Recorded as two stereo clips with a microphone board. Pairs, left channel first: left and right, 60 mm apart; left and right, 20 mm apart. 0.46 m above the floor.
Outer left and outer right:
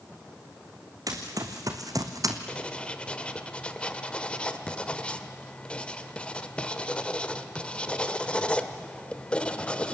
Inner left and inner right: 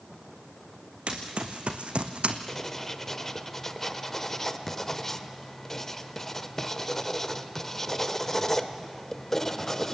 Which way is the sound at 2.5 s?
20° left (ahead or behind).